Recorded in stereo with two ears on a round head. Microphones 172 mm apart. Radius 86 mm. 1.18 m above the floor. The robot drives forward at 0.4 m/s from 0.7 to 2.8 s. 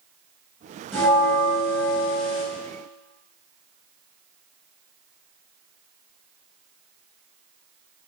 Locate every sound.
0.9 s a bell: centre (ahead or behind), 6.5 m